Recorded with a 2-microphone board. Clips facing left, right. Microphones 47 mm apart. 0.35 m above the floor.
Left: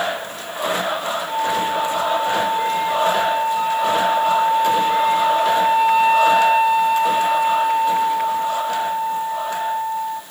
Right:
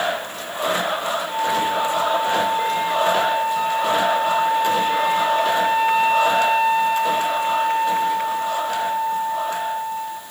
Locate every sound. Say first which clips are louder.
1.3 s a flute: left 1 dB; 10° left (ahead or behind), 1.6 m